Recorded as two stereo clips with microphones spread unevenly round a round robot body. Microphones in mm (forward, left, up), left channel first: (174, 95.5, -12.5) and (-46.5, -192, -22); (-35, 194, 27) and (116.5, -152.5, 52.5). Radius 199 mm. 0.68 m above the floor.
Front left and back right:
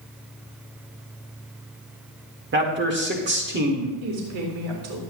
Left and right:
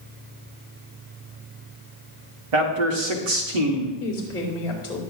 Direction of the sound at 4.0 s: 165° right.